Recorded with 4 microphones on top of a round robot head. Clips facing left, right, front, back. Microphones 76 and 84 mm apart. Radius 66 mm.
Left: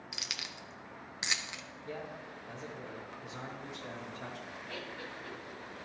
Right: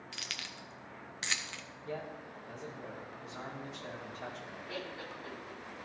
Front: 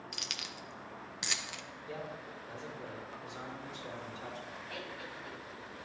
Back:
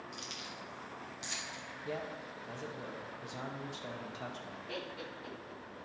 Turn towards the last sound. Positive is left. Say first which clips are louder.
# right 2 dB, back 4 dB
turn(degrees=-170)